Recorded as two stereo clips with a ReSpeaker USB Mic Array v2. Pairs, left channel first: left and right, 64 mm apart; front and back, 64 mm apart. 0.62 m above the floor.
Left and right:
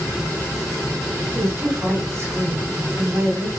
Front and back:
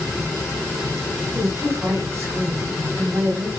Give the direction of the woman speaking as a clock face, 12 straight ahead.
5 o'clock.